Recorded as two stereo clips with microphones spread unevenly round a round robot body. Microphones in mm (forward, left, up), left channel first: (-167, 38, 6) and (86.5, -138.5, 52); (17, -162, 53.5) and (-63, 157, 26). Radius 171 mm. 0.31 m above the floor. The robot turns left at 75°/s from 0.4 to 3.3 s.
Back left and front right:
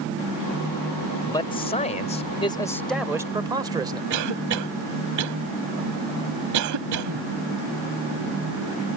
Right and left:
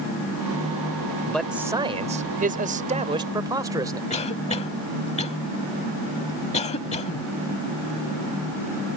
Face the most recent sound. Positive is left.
turn(degrees=-5)